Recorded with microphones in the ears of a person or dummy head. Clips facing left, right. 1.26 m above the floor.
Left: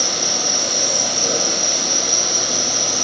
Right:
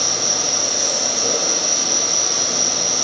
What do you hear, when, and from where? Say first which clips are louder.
0.0 s an insect: left 1 dB; 15° left (ahead or behind), 1.1 m